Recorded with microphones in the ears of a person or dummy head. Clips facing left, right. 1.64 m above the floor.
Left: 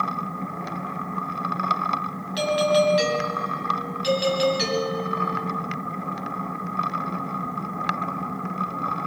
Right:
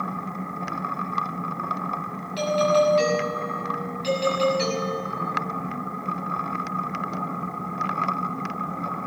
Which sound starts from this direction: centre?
A doorbell, at 2.4 s.